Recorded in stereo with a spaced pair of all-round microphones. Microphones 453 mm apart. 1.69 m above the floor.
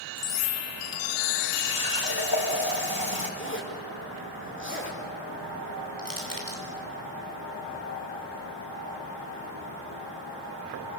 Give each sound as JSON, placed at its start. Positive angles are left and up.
{"t": 1.5, "sound": "a running tap", "side_deg": 55, "distance_m": 5.5}
{"t": 3.4, "sound": "a zipper", "side_deg": 25, "distance_m": 5.0}
{"t": 6.0, "sound": "crushing", "side_deg": -45, "distance_m": 5.5}